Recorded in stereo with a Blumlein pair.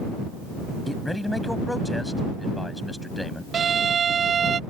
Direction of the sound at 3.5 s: 20° right.